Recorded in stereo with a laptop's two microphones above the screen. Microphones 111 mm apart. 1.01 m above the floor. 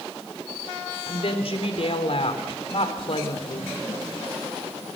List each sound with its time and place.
1.1 s a woman speaking: 60° left (ahead or behind), 3.5 m